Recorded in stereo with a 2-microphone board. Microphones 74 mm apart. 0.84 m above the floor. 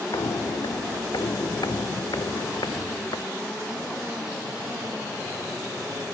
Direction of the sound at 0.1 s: 70° left (ahead or behind).